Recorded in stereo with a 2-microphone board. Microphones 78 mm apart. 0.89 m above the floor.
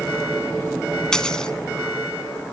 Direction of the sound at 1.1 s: 10° left (ahead or behind).